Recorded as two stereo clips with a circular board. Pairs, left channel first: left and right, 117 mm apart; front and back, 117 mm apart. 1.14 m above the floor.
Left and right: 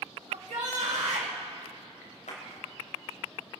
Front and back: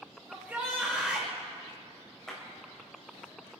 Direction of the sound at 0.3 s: 105° right.